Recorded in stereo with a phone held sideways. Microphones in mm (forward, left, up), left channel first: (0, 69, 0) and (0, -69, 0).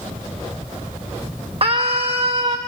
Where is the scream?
45° right (ahead or behind), 1.2 m.